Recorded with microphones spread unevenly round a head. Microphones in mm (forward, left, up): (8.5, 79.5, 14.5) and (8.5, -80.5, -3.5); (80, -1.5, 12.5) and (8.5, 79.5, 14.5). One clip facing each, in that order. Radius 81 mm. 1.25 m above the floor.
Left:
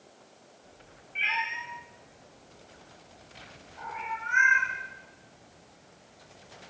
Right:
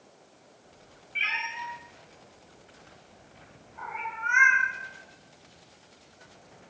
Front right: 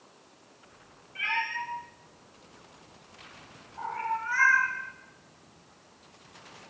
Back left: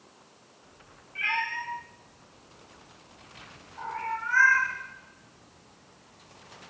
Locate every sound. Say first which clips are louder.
1.1 s a cat meowing: left 2 dB, back left 1 dB; 135° right, 6 m; by 4.7 s 115° right, 4 m